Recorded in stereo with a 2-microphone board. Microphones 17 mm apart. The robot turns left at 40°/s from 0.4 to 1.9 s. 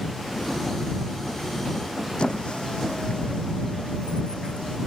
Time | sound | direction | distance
2.2 | a squeak | 75° left (ahead or behind) | ?